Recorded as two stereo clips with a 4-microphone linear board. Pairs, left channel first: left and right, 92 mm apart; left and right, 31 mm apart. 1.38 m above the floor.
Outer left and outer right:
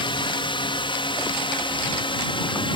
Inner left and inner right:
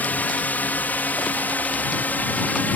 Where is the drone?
65° left (ahead or behind).